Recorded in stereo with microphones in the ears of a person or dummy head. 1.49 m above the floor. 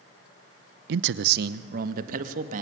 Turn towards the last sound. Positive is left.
turn(degrees=-50)  # may be behind; listen again after turning